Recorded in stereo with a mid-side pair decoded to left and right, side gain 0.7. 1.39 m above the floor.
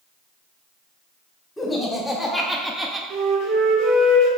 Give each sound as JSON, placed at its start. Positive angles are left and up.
{"t": 1.6, "sound": "laughter", "azimuth_deg": 15, "distance_m": 1.2}
{"t": 3.1, "sound": "a flute", "azimuth_deg": -65, "distance_m": 0.9}